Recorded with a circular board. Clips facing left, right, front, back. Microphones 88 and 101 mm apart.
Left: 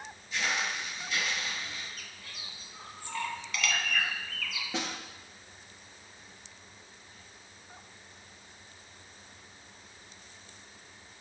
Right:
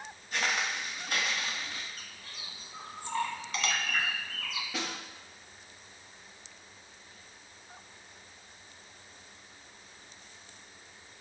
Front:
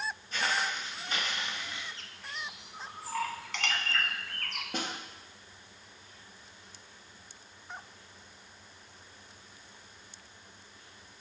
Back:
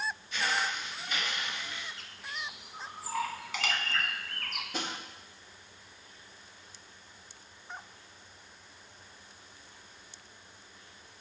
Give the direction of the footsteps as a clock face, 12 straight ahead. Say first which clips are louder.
Right 1 dB, front 1 dB; 2 o'clock.